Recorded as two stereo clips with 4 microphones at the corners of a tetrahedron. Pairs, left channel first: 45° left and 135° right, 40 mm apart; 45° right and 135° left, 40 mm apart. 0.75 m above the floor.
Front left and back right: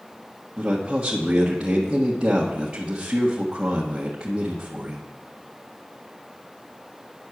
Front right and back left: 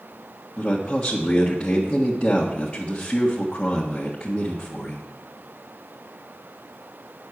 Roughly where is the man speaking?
Right.